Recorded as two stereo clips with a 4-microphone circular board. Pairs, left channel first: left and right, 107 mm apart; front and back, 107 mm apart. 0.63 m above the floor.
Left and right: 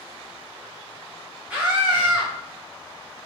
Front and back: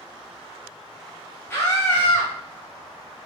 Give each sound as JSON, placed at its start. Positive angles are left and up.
{"t": 1.5, "sound": "a scream", "azimuth_deg": -35, "distance_m": 1.1}